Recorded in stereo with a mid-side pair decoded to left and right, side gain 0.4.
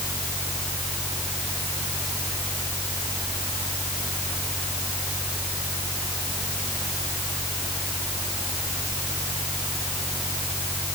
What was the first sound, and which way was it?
A fan, 5° right.